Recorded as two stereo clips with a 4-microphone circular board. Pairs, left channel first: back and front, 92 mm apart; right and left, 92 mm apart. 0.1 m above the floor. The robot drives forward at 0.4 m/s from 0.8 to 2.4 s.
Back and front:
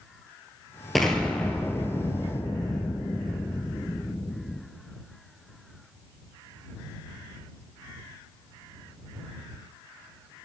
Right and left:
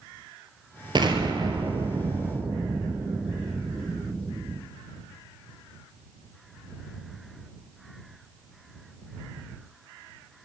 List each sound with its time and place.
0.9 s an explosion: 90° left, 1.0 m; by 4.6 s 125° left, 1.1 m